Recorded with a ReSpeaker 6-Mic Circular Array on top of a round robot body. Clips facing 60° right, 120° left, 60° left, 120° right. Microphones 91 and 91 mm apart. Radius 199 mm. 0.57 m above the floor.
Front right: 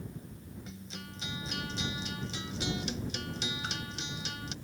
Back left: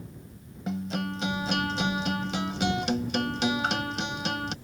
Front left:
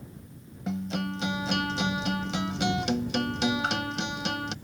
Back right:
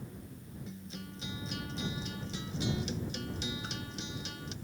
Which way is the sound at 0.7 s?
85° left.